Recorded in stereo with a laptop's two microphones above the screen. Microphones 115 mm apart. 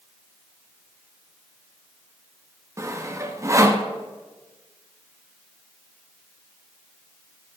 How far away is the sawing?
About 0.5 m.